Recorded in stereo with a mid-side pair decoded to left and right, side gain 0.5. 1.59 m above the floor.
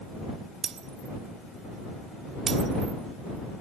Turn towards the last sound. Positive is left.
turn(degrees=-45)